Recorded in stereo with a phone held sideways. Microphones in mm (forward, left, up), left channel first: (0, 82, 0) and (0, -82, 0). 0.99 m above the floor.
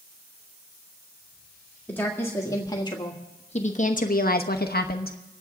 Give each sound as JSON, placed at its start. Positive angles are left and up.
{"t": 1.9, "sound": "a woman speaking", "side_deg": 10, "distance_m": 2.0}